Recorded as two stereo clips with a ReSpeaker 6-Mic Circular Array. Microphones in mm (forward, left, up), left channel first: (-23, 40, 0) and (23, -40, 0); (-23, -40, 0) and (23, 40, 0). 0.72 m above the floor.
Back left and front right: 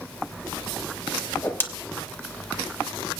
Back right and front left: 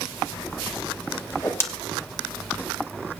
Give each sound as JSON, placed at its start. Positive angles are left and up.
{"t": 1.3, "sound": "a whoosh", "azimuth_deg": -175, "distance_m": 1.1}